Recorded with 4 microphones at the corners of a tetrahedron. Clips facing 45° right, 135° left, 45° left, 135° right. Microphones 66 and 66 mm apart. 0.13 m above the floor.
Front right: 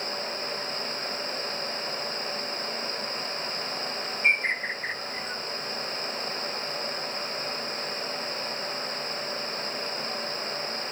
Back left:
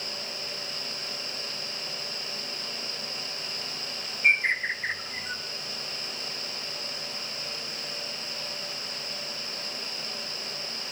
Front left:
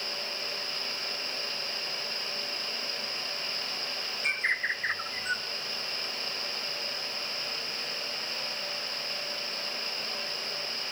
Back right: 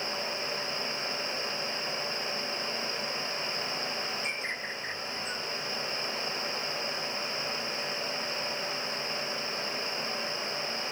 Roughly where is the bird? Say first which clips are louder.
Back left 2 dB, front left 6 dB; ahead left.